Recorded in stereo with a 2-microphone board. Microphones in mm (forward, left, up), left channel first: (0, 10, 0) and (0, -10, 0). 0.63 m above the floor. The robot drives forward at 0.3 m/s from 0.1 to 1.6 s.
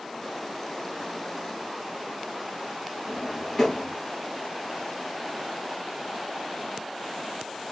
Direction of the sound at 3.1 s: 5° left (ahead or behind).